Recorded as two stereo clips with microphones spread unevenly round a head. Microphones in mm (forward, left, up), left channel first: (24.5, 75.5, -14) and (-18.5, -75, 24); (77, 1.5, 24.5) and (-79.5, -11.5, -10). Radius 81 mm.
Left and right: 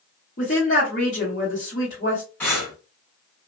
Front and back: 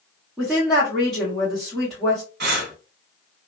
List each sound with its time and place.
0.4 s a woman speaking: 100° left, 1.3 m
2.4 s breathing: 155° left, 1.2 m